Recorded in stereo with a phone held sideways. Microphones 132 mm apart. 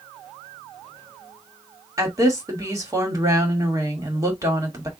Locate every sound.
2.0 s a woman speaking: 25° right (ahead or behind), 1.7 m